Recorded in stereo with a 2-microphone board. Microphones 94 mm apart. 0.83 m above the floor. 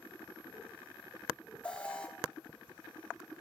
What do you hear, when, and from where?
1.6 s an alarm: 10° left (ahead or behind), 1.8 m